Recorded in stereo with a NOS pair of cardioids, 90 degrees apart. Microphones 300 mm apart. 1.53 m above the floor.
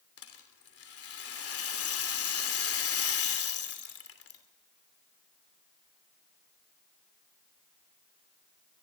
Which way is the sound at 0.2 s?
50° left.